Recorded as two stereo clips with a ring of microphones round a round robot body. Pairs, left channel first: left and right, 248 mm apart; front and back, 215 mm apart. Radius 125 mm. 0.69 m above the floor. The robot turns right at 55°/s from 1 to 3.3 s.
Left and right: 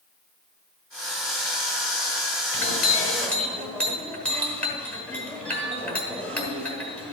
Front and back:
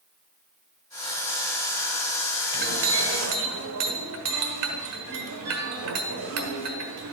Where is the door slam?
I don't hear a door slam.